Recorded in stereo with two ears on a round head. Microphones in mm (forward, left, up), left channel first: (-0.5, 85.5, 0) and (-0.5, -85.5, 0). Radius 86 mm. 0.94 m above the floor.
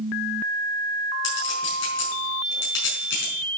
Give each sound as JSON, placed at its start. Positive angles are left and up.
{"t": 1.2, "sound": "a clink", "side_deg": 70, "distance_m": 5.5}